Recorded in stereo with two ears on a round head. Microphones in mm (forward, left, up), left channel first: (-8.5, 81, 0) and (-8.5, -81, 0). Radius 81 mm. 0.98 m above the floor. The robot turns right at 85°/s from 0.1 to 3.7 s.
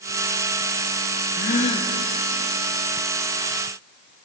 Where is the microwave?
I don't hear a microwave.